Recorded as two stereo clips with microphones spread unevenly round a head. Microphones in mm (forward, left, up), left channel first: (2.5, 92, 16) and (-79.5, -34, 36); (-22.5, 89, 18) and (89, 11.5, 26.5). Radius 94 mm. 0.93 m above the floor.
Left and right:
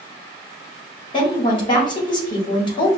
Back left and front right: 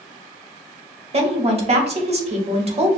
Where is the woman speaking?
5° left, 1.3 m.